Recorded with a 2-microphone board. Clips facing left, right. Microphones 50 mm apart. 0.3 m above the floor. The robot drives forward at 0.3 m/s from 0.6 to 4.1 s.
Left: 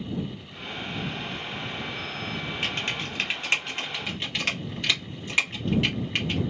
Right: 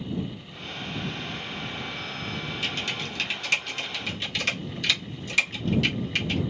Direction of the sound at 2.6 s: 35° left (ahead or behind).